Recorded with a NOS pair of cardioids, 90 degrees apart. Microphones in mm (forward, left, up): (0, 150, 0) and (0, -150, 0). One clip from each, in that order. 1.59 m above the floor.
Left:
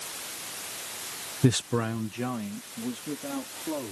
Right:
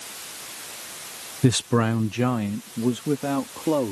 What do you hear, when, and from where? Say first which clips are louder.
1.4 s a man speaking: right 5 dB; 10° right; by 3.9 s 75° right